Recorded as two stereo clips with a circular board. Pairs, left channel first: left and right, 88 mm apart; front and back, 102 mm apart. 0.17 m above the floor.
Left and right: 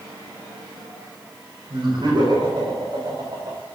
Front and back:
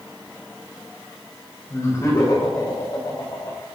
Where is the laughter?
60° right, 8 m; by 3.6 s 45° right, 6.5 m.